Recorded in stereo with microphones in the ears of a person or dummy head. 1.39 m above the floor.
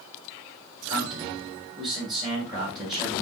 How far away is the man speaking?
About 4 m.